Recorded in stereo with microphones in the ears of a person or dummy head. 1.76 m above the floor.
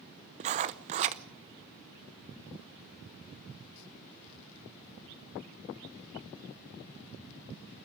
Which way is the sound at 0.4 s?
35° right (ahead or behind).